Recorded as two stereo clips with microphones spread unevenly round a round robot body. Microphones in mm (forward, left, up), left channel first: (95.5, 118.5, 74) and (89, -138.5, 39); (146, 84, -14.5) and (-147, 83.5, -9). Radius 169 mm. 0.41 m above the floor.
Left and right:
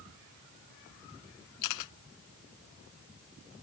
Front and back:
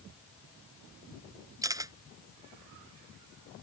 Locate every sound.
1.6 s a camera shutter: 100° left